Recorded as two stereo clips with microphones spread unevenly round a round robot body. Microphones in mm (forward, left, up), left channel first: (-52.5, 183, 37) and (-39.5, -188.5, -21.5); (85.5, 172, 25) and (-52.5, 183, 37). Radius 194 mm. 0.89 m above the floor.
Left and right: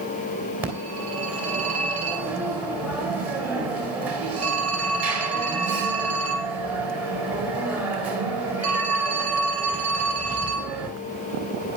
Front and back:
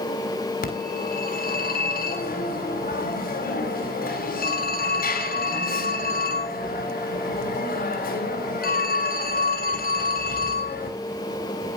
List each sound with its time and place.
0.6 s a phone ringing: straight ahead, 3.5 m